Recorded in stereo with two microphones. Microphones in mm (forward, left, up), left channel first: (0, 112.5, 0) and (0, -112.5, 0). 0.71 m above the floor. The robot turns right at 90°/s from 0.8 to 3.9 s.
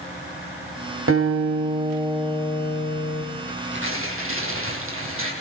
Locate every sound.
1.1 s a guitar: 90° right, 4 m; by 3.2 s 105° left, 4 m
3.5 s tearing paper: 145° right, 4.5 m; by 5.3 s 105° right, 4.5 m